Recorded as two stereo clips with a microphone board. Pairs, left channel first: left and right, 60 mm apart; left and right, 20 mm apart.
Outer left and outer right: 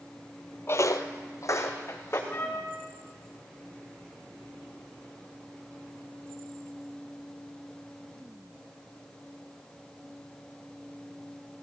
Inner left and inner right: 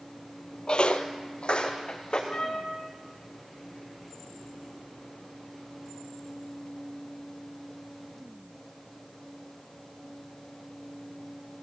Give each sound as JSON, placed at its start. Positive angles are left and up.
{"t": 0.7, "sound": "footsteps", "side_deg": 40, "distance_m": 0.7}
{"t": 2.3, "sound": "a trumpet", "side_deg": 35, "distance_m": 2.5}